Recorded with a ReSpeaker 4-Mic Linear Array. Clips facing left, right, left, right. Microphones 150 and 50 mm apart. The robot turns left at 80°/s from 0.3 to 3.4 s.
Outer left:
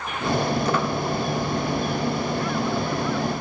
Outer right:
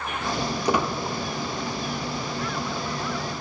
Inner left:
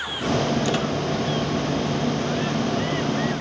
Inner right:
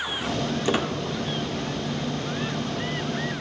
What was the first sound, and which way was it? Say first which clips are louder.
A squeak: outer left 1 dB, inner left 1 dB; 15° right (ahead or behind).